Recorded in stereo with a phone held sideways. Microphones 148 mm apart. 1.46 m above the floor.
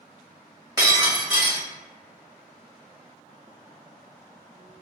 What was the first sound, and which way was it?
Breaking glass, 25° right (ahead or behind).